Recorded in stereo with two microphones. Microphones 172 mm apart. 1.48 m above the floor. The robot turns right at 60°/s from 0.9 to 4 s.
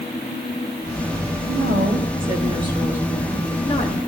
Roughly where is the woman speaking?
Right.